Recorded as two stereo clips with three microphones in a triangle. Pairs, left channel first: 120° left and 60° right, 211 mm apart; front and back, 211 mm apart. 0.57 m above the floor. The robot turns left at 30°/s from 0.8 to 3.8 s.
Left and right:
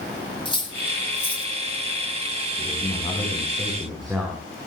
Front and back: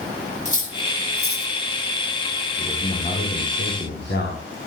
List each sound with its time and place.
0.5 s cutlery clinking: 55° left, 5 m; by 1.5 s 30° left, 5 m
2.6 s a man speaking: 70° left, 5.5 m; by 4.4 s 30° left, 5.5 m